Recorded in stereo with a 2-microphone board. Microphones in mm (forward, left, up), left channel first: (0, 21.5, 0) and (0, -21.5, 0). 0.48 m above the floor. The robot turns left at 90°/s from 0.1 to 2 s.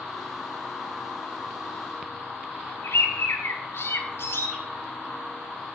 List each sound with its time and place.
2.8 s a bird: 70° left (ahead or behind), 1.6 m